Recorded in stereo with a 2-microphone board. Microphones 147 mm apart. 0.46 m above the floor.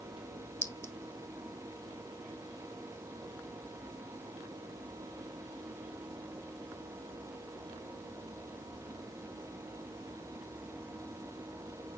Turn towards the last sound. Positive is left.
turn(degrees=20)  # may be behind; listen again after turning